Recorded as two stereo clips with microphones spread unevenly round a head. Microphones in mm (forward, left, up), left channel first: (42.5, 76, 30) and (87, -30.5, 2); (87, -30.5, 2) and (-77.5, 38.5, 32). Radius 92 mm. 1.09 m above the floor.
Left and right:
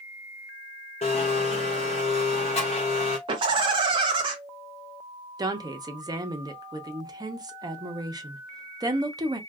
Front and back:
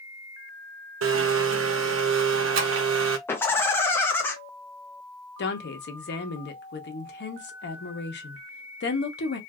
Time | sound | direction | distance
1.0 | a blender | 160° left | 0.5 m
3.3 | laughter | 95° right | 0.5 m
5.4 | a woman speaking | 20° right | 1.0 m